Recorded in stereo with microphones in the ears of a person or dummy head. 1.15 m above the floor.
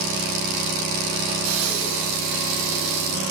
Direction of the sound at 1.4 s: 80° right.